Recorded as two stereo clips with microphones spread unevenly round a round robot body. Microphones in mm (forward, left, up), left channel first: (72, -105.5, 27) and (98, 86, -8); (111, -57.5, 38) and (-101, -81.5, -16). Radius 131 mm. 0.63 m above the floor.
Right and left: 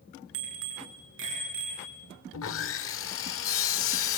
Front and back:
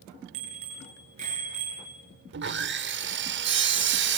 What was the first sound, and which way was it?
A bicycle bell, 120° left.